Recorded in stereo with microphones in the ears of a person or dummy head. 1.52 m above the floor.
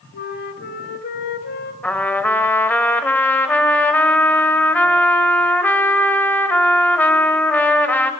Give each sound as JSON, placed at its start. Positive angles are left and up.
{"t": 0.1, "sound": "a flute", "side_deg": 55, "distance_m": 2.0}
{"t": 1.8, "sound": "a trumpet", "side_deg": 10, "distance_m": 2.0}